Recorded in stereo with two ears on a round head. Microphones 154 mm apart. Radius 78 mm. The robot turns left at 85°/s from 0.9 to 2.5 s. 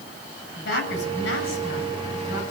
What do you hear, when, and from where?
0.6 s a woman speaking: 105° left, 8 m; by 2.4 s 25° right, 8 m